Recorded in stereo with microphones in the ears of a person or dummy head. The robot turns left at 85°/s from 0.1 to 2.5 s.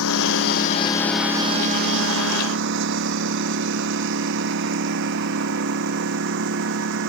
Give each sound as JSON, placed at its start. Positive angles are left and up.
{"t": 0.0, "sound": "a lawn mower", "side_deg": 85}